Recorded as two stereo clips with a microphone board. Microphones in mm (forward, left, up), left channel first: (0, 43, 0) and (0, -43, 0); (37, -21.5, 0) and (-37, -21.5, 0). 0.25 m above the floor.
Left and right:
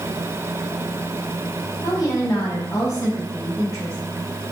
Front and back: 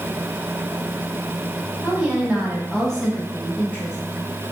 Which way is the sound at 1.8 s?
120° left.